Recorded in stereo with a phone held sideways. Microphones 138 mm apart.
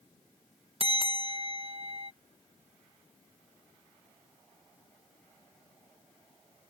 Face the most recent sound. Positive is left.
turn(degrees=-45)  # may be behind; listen again after turning